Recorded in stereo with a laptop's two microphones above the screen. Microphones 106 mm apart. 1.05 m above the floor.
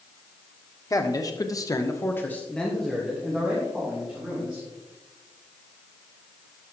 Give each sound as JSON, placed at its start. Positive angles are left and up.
{"t": 0.9, "sound": "a man speaking", "side_deg": 35, "distance_m": 1.3}